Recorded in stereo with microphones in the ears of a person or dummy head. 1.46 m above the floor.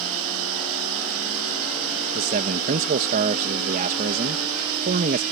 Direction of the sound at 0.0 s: 85° right.